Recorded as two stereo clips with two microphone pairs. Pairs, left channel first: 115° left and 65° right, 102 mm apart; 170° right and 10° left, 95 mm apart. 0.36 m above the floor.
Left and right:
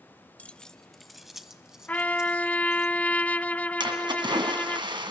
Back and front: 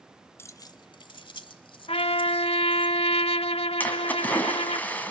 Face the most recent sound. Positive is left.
turn(degrees=-100)